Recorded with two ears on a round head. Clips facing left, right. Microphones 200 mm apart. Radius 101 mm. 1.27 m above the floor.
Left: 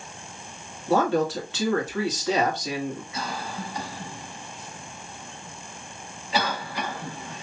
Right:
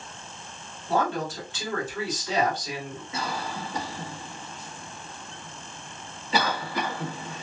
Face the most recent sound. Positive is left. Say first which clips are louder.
# right 1 dB
turn(degrees=-75)  # may be behind; listen again after turning